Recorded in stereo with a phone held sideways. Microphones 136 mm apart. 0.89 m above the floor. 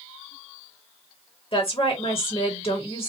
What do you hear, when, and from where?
1.5 s a woman speaking: 45° left (ahead or behind), 1.4 m